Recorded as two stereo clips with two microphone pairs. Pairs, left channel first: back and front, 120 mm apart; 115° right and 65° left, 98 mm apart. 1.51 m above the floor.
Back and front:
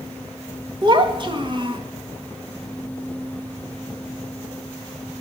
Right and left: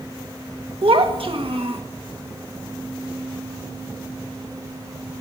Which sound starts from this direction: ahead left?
A child speaking, at 0.8 s.